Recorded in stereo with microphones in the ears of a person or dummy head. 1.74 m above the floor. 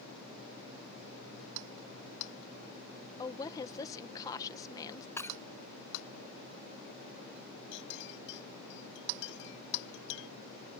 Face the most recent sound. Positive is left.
turn(degrees=65)  # may be behind; listen again after turning